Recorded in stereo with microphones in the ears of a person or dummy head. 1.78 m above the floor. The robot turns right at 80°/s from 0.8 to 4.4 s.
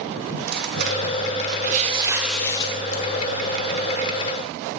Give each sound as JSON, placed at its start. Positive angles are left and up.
{"t": 0.3, "sound": "tearing paper", "azimuth_deg": -120, "distance_m": 0.9}